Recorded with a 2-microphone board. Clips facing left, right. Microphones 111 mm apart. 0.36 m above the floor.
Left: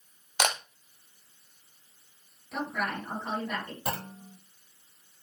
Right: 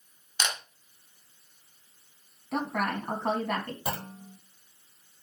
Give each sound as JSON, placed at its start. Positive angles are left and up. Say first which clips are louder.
{"t": 0.4, "sound": "a camera shutter", "louder": "left 5 dB", "side_deg": 65, "distance_m": 1.3}
{"t": 2.5, "sound": "a woman speaking", "louder": "right 3 dB", "side_deg": -70, "distance_m": 3.5}
{"t": 3.9, "sound": "a clunk", "louder": "even", "side_deg": -5, "distance_m": 0.6}